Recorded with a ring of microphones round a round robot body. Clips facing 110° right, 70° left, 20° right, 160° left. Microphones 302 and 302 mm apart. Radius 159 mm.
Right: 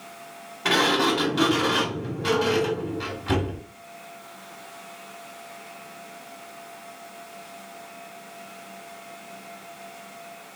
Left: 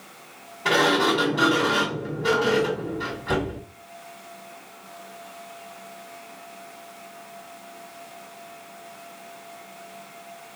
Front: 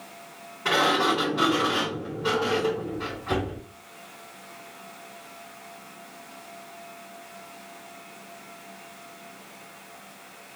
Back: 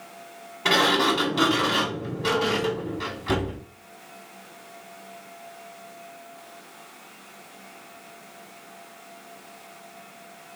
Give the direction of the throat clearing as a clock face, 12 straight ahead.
No throat clearing in this recording.